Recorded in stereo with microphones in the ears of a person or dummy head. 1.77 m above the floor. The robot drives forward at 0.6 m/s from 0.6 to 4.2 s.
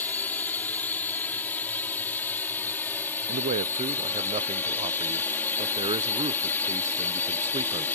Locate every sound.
0.0 s a drone: 5° left (ahead or behind)
3.3 s a man speaking: 40° right (ahead or behind); by 7.9 s 25° right (ahead or behind)